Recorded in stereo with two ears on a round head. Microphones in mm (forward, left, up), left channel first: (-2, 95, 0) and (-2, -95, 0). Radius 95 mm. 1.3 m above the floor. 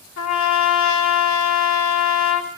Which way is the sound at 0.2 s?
70° left (ahead or behind).